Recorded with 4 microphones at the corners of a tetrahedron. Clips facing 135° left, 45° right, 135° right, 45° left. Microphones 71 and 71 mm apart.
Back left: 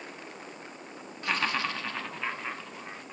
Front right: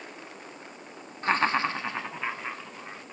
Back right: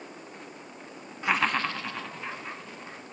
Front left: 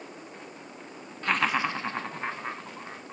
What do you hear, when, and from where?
1.2 s laughter: 65° right, 0.8 m; by 3.1 s 45° left, 1.6 m